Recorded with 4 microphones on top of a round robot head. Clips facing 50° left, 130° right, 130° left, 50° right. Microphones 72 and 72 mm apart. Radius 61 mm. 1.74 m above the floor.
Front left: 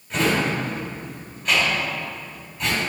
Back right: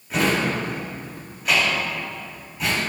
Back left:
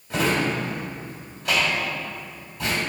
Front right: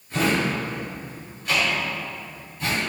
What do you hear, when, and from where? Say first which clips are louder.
0.1 s a drawer: even, even; 145° left, 2.5 m